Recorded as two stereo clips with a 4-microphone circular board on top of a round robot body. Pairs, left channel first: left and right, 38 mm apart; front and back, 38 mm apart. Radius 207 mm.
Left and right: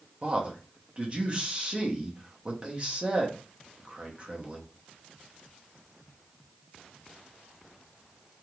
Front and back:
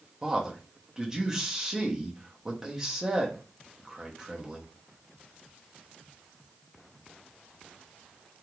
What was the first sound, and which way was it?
A man speaking, 120° right.